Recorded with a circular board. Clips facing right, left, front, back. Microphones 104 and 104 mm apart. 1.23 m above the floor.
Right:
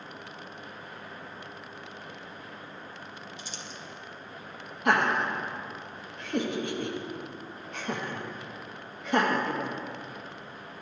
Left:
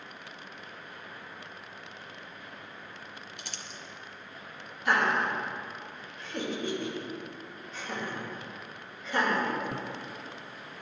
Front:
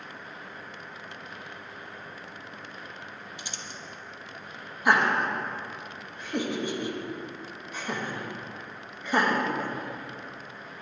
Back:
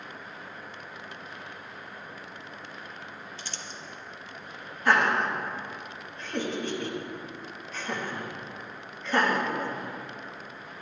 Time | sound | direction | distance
3.4 | crumpling | 75° left | 1.1 m
4.8 | laughter | 75° right | 1.9 m